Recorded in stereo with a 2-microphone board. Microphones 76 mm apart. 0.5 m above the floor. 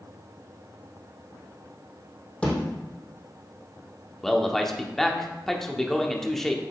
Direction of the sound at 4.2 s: 5° left (ahead or behind).